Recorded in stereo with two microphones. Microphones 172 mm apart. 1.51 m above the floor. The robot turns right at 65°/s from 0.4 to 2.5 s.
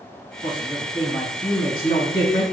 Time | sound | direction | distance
0.4 | a man speaking | 30° right | 1.5 m